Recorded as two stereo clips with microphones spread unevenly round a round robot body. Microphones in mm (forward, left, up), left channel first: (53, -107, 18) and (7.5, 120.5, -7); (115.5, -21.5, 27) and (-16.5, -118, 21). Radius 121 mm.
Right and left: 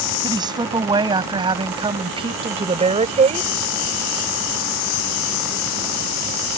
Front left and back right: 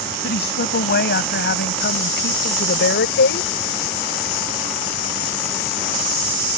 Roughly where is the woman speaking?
Ahead left.